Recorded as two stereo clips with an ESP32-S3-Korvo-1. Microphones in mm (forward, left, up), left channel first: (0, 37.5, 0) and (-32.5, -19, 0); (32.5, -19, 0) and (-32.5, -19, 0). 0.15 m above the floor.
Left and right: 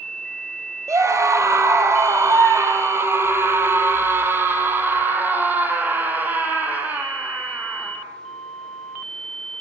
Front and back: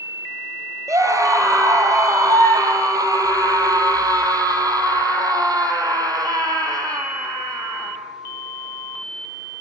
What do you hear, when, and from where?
0.9 s a scream: 150° right, 4.5 m; by 8.0 s 175° left, 6.5 m